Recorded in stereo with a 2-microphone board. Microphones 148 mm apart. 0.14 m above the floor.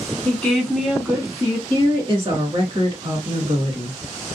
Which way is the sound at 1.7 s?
40° right (ahead or behind).